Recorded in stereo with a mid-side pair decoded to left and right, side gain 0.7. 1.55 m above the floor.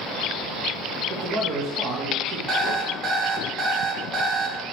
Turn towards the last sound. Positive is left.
turn(degrees=-35)